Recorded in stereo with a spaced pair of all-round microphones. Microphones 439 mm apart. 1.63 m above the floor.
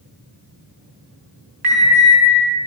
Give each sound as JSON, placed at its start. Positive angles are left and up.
{"t": 1.6, "sound": "an alarm", "side_deg": -55, "distance_m": 5.0}